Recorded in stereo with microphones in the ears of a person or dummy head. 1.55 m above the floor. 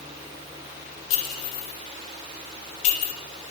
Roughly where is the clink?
Left.